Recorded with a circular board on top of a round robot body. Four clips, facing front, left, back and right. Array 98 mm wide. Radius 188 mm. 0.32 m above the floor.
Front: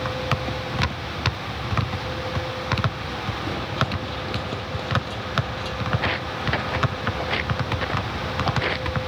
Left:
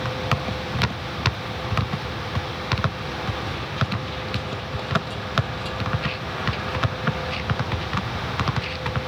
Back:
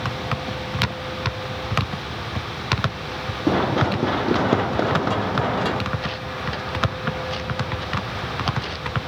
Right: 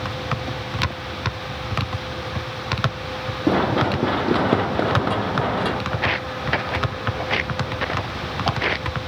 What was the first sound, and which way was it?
Running footsteps, 125° right.